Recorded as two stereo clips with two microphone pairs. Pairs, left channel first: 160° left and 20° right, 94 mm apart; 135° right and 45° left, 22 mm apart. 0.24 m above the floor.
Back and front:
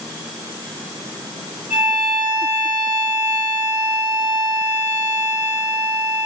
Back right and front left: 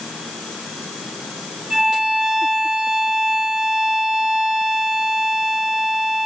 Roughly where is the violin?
Ahead right.